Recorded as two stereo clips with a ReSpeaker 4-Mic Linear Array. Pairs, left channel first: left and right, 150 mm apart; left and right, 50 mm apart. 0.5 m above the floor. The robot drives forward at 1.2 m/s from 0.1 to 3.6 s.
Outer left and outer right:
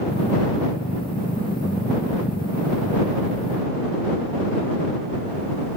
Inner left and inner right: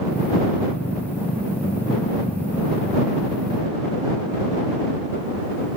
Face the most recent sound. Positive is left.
No sound to turn to.